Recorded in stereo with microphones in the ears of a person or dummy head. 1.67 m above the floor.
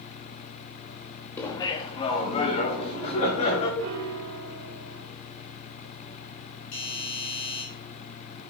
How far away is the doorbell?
About 3.5 m.